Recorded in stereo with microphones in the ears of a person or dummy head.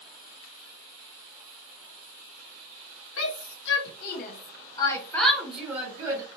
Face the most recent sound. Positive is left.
turn(degrees=-15)  # may be behind; listen again after turning